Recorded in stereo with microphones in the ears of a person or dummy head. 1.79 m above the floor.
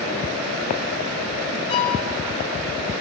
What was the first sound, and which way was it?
A violin, 35° left (ahead or behind).